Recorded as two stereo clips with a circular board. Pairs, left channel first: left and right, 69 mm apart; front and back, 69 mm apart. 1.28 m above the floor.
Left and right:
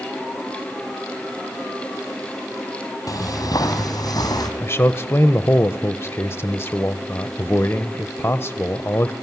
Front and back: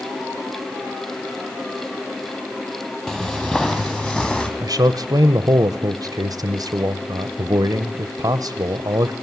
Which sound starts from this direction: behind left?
A man speaking, at 4.6 s.